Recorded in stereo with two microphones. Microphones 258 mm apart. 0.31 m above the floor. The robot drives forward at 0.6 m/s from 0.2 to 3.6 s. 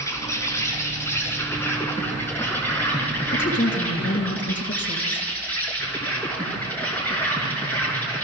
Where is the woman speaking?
45° left (ahead or behind), 2.5 m.